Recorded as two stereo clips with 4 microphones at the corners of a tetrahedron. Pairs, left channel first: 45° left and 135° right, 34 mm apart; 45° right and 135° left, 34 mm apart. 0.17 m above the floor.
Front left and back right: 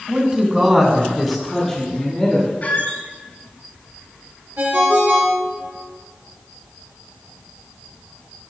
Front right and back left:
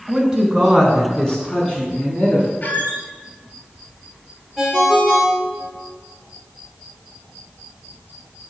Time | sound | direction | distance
0.1 | a man speaking | 160° right | 1.5 m
2.6 | a squeak | 5° left | 1.0 m
4.6 | a ringtone | 130° right | 2 m